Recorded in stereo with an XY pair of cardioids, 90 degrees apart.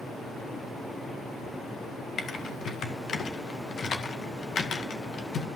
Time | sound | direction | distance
2.2 | typing on a keyboard | 55° left | 1.9 m